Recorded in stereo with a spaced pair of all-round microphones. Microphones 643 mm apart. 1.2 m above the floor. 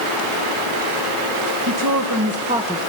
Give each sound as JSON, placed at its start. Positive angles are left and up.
{"t": 1.7, "sound": "a woman speaking", "side_deg": -30, "distance_m": 1.7}